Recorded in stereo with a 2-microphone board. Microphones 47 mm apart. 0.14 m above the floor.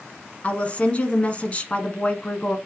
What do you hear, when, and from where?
0.4 s a woman speaking: 30° left (ahead or behind), 1.1 m